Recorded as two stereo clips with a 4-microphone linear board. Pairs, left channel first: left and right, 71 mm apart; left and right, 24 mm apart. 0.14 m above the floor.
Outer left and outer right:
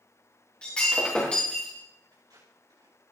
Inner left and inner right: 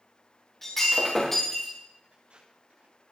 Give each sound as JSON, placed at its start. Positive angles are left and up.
{"t": 0.6, "sound": "breaking glass", "side_deg": 15, "distance_m": 7.0}
{"t": 2.1, "sound": "tape being pulled", "side_deg": -80, "distance_m": 7.5}